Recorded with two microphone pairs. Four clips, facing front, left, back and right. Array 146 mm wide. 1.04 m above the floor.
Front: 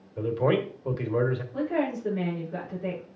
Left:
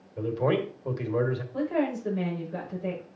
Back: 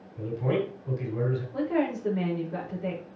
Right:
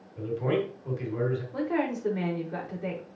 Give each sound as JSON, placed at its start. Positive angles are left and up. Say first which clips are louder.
{"t": 0.2, "sound": "a man speaking", "louder": "left 2 dB, front 3 dB", "azimuth_deg": 30, "distance_m": 2.0}
{"t": 1.5, "sound": "a woman speaking", "louder": "left 3 dB, back 2 dB", "azimuth_deg": -90, "distance_m": 4.0}